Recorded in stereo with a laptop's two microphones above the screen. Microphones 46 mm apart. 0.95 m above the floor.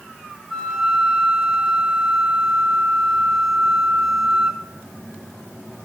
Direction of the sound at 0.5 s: 5° right (ahead or behind).